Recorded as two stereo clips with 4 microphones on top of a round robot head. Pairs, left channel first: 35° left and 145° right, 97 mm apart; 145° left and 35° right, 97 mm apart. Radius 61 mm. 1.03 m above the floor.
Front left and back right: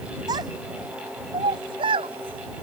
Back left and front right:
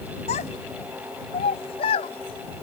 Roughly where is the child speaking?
Behind.